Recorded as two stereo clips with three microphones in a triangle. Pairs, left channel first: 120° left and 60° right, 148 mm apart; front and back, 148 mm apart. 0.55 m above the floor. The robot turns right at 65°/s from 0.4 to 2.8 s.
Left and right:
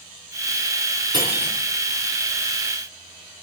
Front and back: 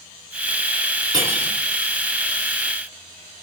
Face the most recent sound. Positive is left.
turn(degrees=-10)